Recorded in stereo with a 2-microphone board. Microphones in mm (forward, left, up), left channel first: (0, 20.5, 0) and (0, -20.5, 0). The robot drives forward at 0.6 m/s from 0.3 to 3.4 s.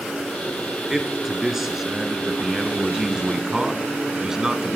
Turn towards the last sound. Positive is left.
turn(degrees=-15)  # may be behind; listen again after turning